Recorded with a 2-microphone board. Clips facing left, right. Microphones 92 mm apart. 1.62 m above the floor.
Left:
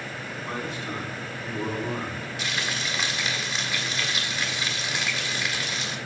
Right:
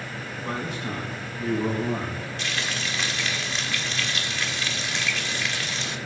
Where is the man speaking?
65° right (ahead or behind), 2.5 m; by 2.3 s 85° right, 2.5 m.